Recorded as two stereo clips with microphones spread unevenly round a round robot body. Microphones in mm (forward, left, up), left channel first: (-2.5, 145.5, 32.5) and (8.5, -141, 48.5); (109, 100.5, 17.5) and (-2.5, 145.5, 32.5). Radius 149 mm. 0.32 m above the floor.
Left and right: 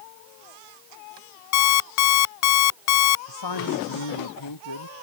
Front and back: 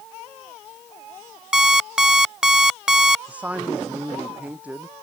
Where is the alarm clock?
70° left.